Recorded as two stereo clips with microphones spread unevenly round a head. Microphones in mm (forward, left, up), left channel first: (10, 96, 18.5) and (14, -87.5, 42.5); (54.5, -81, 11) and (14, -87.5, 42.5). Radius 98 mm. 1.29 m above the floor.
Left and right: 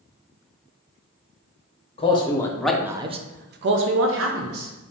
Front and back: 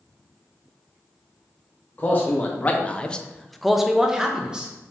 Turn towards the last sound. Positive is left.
turn(degrees=-90)